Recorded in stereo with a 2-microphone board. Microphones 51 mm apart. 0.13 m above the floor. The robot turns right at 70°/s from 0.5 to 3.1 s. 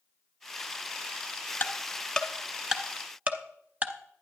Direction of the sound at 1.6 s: 35° left (ahead or behind).